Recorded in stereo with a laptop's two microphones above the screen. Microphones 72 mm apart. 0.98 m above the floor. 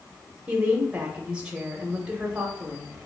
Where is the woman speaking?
15° right (ahead or behind), 0.7 m.